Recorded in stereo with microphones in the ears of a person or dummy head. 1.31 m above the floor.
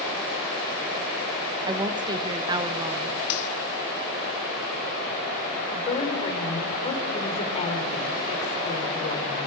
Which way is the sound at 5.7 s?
35° left (ahead or behind).